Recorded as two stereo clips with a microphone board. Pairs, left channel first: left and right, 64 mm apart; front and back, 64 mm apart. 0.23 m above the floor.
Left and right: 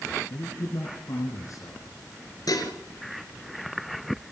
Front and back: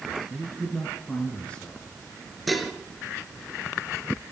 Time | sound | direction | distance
0.3 | a man speaking | 70° left | 3 m
2.5 | dishes clattering | 90° left | 2.5 m